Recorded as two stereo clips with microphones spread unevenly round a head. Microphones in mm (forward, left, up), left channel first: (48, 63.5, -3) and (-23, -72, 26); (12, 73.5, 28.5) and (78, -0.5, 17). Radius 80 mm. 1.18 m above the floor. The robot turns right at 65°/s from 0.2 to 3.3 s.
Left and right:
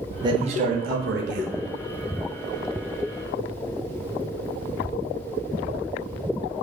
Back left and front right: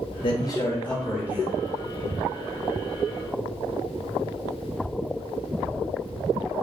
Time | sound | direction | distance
0.2 | a man speaking | 175° left | 0.8 m